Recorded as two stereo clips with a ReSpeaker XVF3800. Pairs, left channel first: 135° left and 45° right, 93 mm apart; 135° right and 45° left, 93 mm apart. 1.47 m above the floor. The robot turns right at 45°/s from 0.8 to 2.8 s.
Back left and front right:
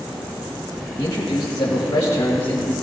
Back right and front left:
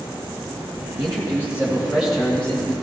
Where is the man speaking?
90° left, 1.8 m; by 2.7 s 170° left, 1.8 m.